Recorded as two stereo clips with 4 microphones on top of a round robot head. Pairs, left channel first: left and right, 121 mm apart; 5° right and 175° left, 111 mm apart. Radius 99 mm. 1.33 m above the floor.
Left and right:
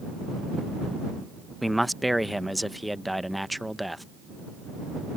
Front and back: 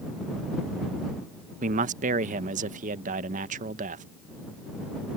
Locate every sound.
1.6 s a man speaking: straight behind